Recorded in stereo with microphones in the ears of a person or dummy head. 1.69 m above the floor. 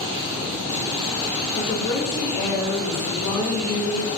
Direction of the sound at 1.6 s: 55° left (ahead or behind).